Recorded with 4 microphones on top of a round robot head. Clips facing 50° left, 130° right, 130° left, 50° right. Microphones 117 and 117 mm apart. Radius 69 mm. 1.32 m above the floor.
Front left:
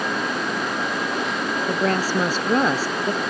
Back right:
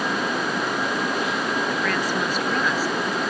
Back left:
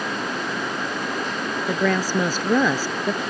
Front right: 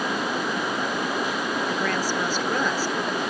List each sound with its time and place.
1.7 s a woman speaking: 110° left; by 3.2 s 115° left